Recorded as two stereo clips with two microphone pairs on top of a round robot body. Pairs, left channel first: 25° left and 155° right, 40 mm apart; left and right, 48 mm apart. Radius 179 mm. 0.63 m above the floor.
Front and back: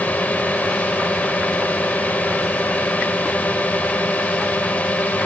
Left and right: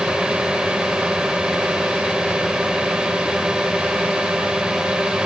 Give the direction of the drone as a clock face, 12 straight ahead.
12 o'clock.